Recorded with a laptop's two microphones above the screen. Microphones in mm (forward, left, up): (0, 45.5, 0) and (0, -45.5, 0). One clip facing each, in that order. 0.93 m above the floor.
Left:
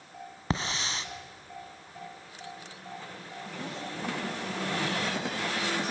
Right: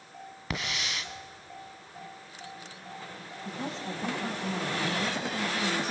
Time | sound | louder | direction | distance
0.5 | a hiss | left 3 dB | 35° left (ahead or behind) | 1.7 m
3.5 | a woman speaking | right 3 dB | 30° right (ahead or behind) | 5 m